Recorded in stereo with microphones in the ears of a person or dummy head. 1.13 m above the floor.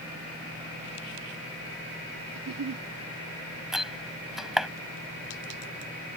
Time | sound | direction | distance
2.4 | a giggle | 75° right (ahead or behind) | ?
3.7 | a door slam | centre (ahead or behind) | ?